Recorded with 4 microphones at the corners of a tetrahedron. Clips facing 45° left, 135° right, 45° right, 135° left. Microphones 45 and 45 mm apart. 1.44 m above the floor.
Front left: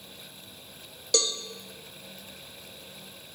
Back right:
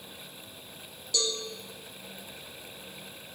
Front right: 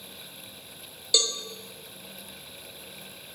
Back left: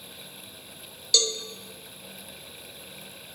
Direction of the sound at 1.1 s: 30° left.